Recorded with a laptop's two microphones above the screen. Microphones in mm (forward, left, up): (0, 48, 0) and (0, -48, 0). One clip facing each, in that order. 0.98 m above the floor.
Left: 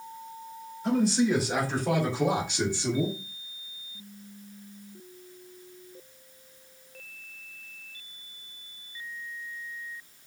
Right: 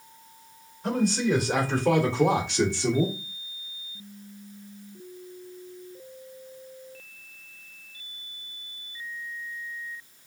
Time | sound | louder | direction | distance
0.8 | a man speaking | left 1 dB | 55° right (ahead or behind) | 3 m